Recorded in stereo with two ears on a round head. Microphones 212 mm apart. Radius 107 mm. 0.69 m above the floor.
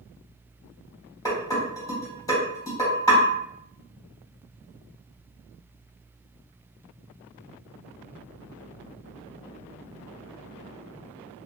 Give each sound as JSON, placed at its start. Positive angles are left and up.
{"t": 1.2, "sound": "dishes clattering", "side_deg": 15, "distance_m": 1.6}